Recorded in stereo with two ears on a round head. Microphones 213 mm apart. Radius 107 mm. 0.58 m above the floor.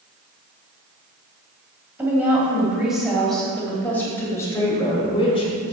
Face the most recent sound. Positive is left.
turn(degrees=30)  # may be behind; listen again after turning